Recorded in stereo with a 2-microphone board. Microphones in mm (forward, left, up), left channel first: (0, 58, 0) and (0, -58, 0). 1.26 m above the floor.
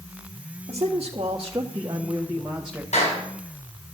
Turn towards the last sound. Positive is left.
turn(degrees=85)